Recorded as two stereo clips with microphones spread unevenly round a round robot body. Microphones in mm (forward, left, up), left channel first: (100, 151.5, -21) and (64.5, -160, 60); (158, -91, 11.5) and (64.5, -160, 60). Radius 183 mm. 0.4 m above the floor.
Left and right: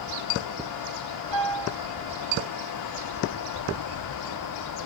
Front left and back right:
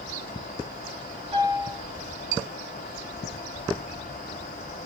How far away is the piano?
About 1.1 m.